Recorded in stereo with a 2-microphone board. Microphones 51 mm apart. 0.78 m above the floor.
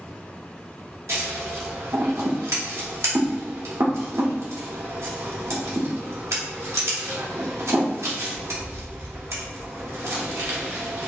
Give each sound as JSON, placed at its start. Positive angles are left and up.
{"t": 1.1, "sound": "scissors", "side_deg": -80, "distance_m": 1.2}